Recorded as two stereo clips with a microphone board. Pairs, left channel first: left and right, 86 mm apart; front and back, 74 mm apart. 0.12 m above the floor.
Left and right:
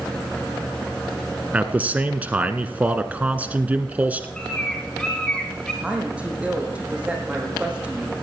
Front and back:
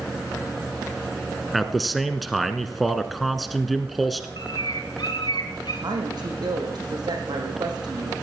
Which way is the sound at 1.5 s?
90° right.